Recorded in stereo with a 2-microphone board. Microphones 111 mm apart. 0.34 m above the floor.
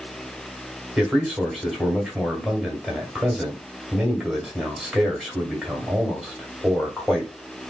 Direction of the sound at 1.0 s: 5° right (ahead or behind).